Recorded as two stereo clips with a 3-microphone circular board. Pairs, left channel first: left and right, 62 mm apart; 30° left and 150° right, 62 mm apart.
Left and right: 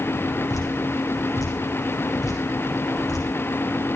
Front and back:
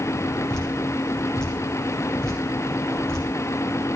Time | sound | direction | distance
0.5 | dripping | 110° left | 8.5 m